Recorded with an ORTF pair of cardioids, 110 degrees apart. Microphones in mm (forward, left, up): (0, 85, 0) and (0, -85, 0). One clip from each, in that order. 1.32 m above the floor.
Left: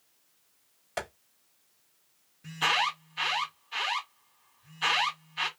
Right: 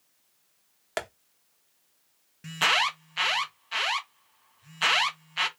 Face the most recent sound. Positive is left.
turn(degrees=-60)